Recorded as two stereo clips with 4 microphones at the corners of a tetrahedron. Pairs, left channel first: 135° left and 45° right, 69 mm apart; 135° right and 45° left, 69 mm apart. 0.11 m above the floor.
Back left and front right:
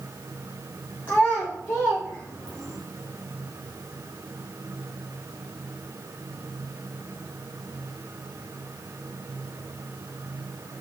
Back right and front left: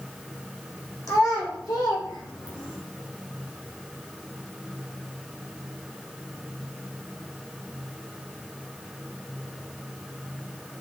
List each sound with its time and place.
1.1 s a child speaking: 160° right, 4.5 m; by 2.8 s 140° right, 3 m